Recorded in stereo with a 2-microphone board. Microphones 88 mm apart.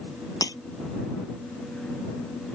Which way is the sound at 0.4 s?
45° left (ahead or behind).